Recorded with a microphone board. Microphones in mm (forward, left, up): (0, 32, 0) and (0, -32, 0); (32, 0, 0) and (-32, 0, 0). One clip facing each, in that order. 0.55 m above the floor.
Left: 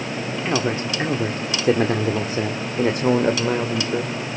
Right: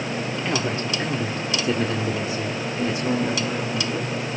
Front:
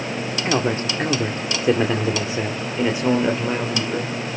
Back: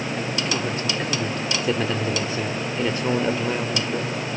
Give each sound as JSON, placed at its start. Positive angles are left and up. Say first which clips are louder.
{"t": 0.5, "sound": "a man speaking", "louder": "left 4 dB, front 4 dB", "azimuth_deg": 25, "distance_m": 1.4}